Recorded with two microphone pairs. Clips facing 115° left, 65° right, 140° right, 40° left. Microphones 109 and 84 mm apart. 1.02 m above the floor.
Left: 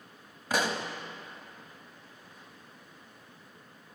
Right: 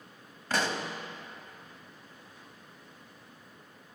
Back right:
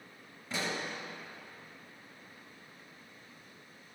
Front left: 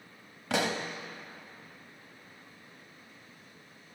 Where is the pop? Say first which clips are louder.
Left 1 dB, front left 6 dB; 35° left, 0.6 m.